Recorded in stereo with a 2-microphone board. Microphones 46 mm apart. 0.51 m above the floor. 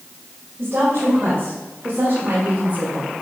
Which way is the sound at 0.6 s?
65° right (ahead or behind).